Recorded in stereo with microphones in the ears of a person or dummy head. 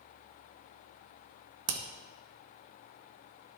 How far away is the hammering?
About 1.2 m.